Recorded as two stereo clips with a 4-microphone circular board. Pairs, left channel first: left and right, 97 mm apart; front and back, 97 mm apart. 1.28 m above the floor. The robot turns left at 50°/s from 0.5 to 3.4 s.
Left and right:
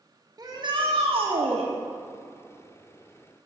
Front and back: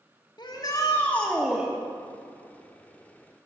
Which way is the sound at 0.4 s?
40° right.